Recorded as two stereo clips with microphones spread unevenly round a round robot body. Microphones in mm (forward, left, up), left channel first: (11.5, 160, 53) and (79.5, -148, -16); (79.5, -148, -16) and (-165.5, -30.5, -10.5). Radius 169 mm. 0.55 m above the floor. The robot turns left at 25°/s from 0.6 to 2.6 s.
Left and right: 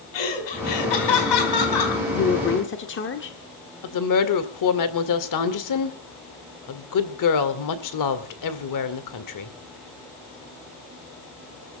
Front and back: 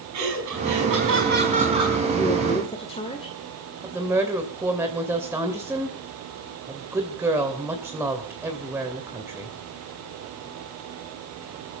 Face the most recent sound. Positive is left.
turn(degrees=70)